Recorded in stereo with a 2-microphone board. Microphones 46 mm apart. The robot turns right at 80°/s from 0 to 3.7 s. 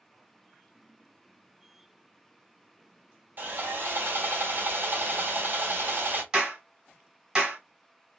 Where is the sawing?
45° right (ahead or behind), 1.4 m; by 6.2 s 50° right (ahead or behind), 1.4 m.